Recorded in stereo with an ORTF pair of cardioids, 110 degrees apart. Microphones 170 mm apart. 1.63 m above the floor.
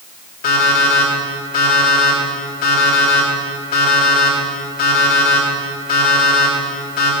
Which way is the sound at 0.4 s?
60° left.